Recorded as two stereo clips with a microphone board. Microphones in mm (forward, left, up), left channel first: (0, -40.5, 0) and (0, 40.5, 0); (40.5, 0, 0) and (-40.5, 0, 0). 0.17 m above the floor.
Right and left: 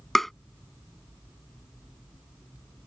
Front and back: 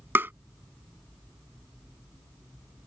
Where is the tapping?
175° right.